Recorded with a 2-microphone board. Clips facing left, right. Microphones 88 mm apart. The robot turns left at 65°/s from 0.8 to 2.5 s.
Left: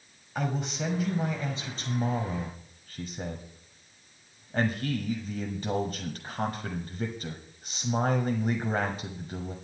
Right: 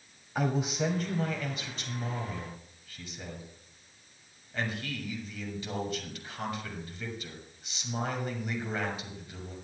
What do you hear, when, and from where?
0.3 s a man speaking: 175° right, 1.4 m; by 9.6 s 75° left, 1.4 m